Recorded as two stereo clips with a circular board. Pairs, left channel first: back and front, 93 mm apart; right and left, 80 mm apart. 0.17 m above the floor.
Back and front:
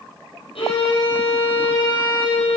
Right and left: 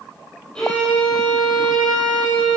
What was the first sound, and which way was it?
A violin, 170° right.